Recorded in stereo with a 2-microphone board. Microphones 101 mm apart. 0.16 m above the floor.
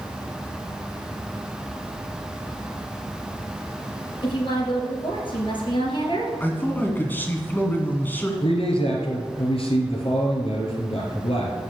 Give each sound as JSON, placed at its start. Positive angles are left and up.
{"t": 4.2, "sound": "a woman speaking", "side_deg": 50, "distance_m": 3.5}
{"t": 6.4, "sound": "a man speaking", "side_deg": 20, "distance_m": 1.8}
{"t": 8.4, "sound": "a man speaking", "side_deg": 60, "distance_m": 2.5}